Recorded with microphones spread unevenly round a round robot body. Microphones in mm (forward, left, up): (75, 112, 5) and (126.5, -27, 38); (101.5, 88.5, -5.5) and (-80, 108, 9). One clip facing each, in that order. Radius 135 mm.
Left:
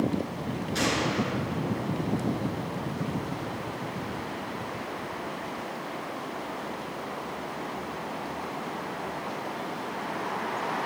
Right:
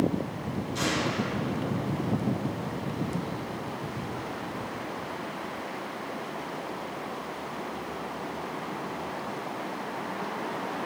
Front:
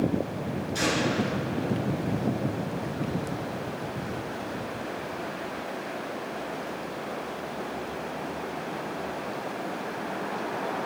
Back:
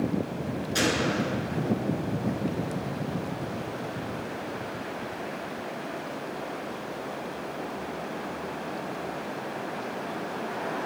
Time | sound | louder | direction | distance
0.8 | a gunshot | left 2 dB, even | 165° left | 4.5 m